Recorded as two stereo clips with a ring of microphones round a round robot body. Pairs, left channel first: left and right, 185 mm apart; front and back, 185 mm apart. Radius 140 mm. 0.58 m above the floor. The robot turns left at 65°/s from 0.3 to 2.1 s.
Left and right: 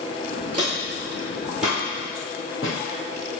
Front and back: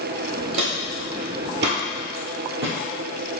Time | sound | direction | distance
0.5 | footsteps | 145° right | 0.7 m